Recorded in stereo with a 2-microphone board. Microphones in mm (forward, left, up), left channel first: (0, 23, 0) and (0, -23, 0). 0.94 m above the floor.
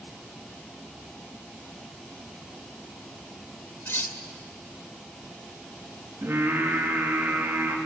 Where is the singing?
65° right (ahead or behind), 4 m.